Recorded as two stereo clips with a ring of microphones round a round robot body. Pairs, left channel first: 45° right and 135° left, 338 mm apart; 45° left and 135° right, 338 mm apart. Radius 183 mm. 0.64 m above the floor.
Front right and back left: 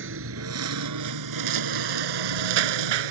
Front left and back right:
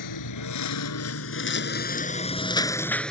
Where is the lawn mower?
80° left; by 3.1 s 135° left.